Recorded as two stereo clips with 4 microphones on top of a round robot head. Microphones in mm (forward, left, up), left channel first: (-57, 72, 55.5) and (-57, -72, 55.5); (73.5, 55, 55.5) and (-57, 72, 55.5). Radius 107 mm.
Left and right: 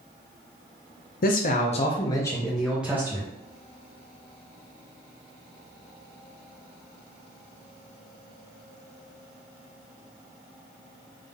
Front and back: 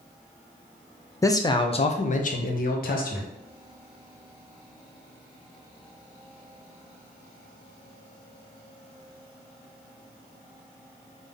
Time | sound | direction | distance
1.2 | a man speaking | 60° left | 0.7 m